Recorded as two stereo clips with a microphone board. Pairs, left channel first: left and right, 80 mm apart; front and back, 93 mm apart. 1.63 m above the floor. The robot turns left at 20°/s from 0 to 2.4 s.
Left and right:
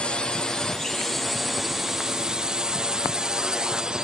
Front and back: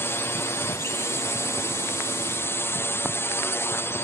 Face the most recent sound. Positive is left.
turn(degrees=-20)